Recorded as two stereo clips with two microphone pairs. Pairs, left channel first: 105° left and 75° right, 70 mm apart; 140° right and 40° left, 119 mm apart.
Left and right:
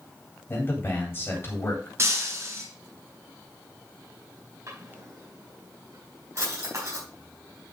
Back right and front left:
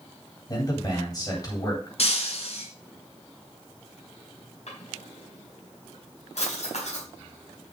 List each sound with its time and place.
0.5 s a man speaking: 165° left, 3.5 m
2.0 s breaking glass: 120° right, 3 m
4.7 s a drawer: 115° right, 5 m